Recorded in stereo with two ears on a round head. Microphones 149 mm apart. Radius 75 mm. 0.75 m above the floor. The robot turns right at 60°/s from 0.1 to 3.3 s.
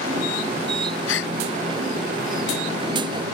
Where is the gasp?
85° left; by 1.3 s 70° left (ahead or behind).